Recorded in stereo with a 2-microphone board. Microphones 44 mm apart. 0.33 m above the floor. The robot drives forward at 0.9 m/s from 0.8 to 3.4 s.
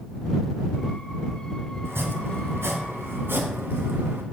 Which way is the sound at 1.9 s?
65° right (ahead or behind).